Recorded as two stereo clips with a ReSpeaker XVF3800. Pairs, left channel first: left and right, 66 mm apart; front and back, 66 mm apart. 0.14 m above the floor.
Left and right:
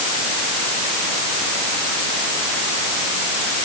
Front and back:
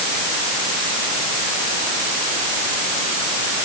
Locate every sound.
Only background noise.